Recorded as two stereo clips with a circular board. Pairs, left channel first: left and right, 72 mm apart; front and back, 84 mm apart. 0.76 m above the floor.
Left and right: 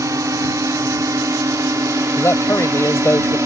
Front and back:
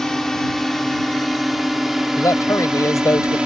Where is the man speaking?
45° left.